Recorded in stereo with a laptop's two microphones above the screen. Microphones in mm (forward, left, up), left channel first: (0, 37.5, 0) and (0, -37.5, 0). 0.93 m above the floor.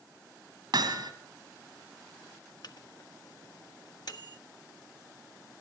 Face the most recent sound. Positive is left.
turn(degrees=65)  # may be behind; listen again after turning